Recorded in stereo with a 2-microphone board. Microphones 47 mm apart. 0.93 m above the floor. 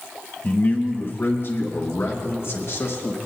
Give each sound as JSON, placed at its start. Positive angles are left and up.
{"t": 0.4, "sound": "a man speaking", "side_deg": 35, "distance_m": 1.4}